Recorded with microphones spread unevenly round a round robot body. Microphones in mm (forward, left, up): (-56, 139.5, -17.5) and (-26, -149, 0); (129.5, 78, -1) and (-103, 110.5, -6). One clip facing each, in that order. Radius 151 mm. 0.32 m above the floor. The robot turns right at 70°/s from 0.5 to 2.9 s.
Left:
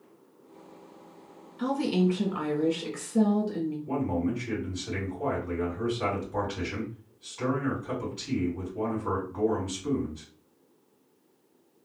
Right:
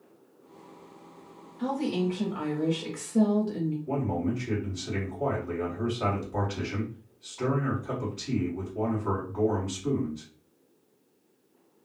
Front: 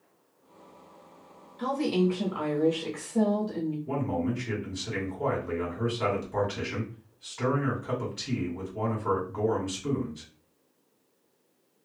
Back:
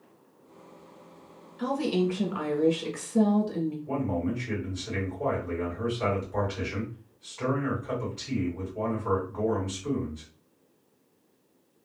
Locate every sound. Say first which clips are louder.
1.6 s a woman speaking: left 2 dB, even; 90° left, 0.9 m; by 3.8 s straight behind, 0.9 m
3.9 s a man speaking: left 3 dB, even; 30° left, 2 m